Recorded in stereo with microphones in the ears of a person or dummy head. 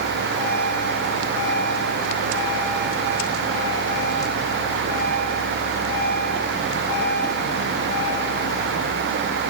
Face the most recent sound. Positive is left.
No sound to turn to.